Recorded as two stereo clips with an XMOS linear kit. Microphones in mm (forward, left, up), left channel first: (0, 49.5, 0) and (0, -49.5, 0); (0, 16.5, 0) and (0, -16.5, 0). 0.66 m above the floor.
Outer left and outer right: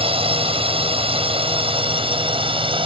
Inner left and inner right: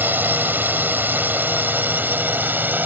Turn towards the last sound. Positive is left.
turn(degrees=-60)  # may be behind; listen again after turning